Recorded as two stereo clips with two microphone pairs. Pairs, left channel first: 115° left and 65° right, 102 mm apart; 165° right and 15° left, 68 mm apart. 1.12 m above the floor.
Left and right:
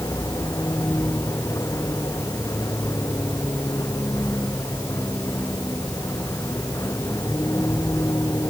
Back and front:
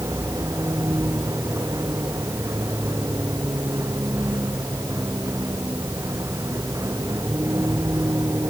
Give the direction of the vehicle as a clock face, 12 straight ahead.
10 o'clock.